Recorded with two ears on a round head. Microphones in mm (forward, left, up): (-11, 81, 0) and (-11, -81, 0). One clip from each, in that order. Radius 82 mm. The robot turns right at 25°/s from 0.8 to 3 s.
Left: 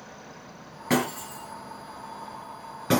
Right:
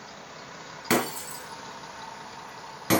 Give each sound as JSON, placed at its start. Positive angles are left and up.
{"t": 0.9, "sound": "breaking glass", "side_deg": -75, "distance_m": 5.0}